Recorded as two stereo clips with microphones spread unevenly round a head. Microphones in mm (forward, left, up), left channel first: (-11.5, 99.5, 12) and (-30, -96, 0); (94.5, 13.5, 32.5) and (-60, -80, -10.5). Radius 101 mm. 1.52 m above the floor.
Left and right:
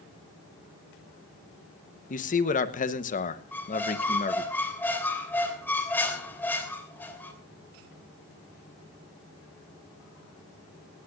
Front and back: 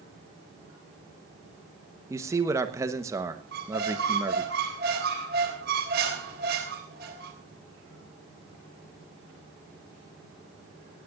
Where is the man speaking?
130° left, 1.0 m.